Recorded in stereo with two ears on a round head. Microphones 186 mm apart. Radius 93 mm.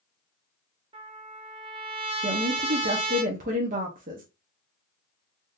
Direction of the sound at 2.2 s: 40° right (ahead or behind).